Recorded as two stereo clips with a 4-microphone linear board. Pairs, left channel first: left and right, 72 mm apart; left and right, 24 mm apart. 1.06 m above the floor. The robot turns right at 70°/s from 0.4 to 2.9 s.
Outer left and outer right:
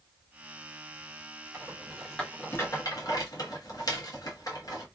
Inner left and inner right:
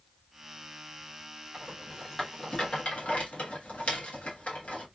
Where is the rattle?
35° right (ahead or behind), 1.3 m; by 4.8 s 60° left (ahead or behind), 1.3 m.